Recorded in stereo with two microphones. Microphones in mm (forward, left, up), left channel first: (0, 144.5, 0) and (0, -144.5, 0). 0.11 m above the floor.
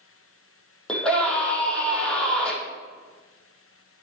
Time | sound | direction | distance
0.9 | a scream | 5° left (ahead or behind) | 4.5 m